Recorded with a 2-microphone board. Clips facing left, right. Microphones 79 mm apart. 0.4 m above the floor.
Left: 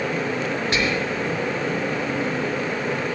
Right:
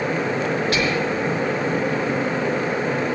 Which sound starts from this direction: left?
Whispering, at 0.7 s.